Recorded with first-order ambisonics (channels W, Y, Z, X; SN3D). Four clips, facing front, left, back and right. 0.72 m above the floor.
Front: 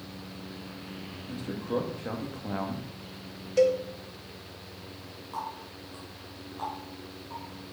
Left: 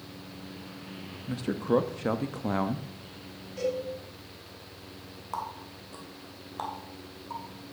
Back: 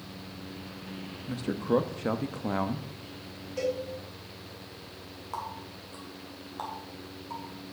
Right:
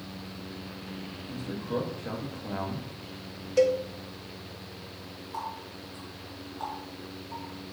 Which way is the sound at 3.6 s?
60° right.